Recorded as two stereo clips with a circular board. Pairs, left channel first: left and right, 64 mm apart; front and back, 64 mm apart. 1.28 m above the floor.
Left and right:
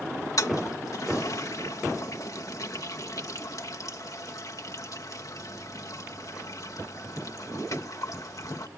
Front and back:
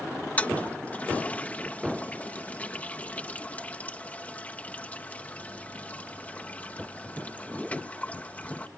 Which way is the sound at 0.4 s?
70° left.